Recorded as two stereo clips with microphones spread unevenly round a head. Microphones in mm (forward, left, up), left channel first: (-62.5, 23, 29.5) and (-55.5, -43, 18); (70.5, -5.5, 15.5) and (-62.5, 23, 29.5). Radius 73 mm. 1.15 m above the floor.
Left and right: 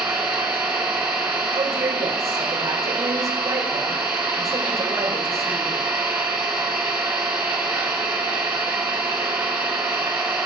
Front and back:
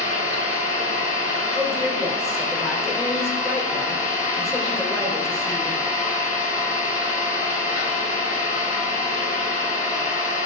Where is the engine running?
55° right, 4 m.